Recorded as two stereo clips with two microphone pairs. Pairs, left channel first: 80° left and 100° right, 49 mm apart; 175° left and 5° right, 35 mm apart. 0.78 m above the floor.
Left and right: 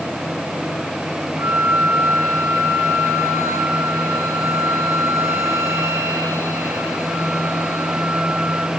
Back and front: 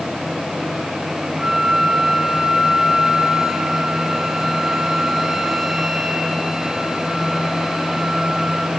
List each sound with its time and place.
1.4 s a flute: 90° right, 3 m